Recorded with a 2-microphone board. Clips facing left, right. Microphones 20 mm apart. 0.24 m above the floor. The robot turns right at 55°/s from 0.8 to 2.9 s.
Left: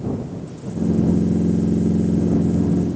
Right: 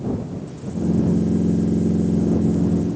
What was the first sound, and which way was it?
Only background noise.